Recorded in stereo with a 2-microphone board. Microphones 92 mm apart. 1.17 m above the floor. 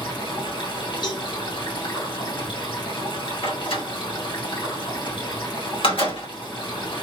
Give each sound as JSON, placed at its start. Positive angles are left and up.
{"t": 0.0, "sound": "running water", "side_deg": 65, "distance_m": 2.5}
{"t": 1.0, "sound": "a cowbell", "side_deg": 50, "distance_m": 0.9}
{"t": 3.4, "sound": "a door slam", "side_deg": 85, "distance_m": 2.5}